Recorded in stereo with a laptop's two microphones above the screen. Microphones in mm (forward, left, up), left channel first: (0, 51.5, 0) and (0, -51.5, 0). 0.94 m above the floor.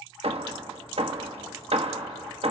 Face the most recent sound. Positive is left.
turn(degrees=-70)  # may be behind; listen again after turning